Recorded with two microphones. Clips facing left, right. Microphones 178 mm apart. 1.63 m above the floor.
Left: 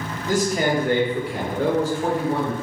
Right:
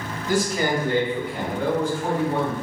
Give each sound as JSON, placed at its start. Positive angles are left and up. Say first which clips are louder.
{"t": 0.3, "sound": "a man speaking", "louder": "left 2 dB", "side_deg": 40, "distance_m": 0.9}